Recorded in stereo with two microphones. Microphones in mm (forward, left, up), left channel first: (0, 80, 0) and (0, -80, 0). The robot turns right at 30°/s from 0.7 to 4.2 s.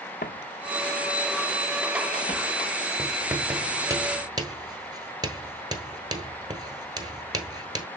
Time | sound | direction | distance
0.2 | footsteps | 70° left (ahead or behind) | 0.6 m
3.0 | writing | centre (ahead or behind) | 1.1 m